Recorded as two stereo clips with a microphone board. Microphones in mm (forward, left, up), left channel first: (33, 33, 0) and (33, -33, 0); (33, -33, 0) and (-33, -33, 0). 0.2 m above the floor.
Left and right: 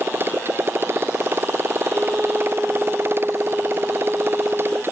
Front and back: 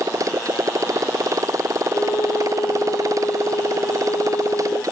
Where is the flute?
15° right.